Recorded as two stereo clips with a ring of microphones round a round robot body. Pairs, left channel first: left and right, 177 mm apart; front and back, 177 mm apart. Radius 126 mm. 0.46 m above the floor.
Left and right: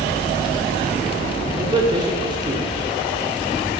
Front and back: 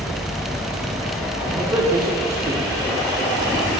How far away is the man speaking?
About 1.1 m.